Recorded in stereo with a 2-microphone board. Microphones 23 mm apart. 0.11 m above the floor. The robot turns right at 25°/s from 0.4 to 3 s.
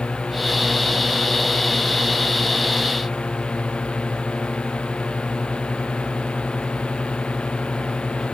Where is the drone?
60° left; by 8.3 s 125° left.